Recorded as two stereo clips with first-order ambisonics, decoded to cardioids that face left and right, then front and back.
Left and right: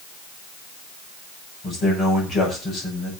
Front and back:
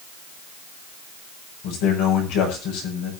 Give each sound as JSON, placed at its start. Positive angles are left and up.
{"t": 1.6, "sound": "a man speaking", "azimuth_deg": 25, "distance_m": 6.5}